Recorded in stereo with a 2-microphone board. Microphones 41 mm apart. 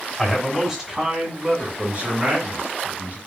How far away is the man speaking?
About 1.6 m.